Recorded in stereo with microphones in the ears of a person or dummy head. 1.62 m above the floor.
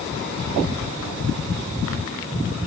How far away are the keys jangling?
No keys jangling in this recording.